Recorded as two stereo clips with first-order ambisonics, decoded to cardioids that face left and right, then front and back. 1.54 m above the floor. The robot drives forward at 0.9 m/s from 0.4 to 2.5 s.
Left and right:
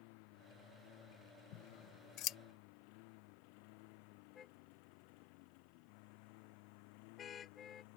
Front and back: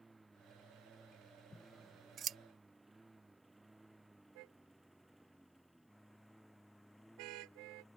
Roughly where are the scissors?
Left.